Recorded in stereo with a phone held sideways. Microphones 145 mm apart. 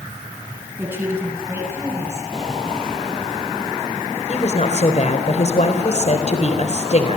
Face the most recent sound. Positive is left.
turn(degrees=50)  # may be behind; listen again after turning